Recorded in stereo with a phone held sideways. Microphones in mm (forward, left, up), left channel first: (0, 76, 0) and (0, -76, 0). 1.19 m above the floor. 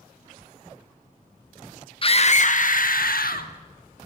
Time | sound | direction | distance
2.0 | a scream | 35° left (ahead or behind) | 0.8 m